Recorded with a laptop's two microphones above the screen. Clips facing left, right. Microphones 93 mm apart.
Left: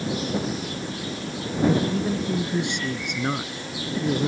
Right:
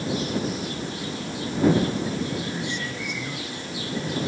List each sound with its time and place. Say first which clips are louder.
1.9 s a man speaking: left 3 dB; 80° left